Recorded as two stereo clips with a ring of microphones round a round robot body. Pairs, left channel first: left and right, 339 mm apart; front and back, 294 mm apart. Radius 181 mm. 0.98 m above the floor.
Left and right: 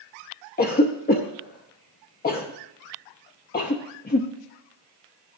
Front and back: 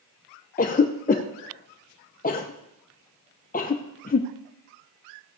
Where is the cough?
45° left, 0.7 m.